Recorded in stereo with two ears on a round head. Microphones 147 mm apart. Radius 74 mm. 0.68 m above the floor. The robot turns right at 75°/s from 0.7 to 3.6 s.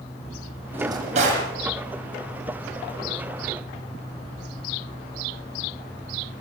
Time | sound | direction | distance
0.7 | a drawer | 170° right | 10 m